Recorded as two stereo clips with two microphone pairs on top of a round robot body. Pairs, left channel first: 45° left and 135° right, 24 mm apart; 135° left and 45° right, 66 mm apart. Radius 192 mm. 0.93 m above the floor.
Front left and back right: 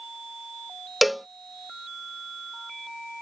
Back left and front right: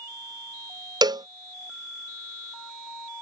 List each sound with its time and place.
1.0 s a cowbell: 45° right